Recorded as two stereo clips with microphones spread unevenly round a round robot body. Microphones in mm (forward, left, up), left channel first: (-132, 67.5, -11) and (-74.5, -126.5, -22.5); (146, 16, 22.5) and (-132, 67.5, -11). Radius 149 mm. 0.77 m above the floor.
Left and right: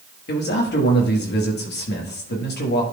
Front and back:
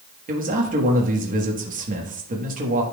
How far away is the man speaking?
About 1.3 m.